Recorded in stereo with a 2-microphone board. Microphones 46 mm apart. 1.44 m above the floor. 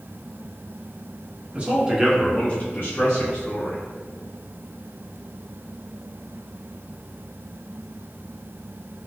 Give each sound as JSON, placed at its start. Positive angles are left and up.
{"t": 1.5, "sound": "a man speaking", "side_deg": -25, "distance_m": 0.9}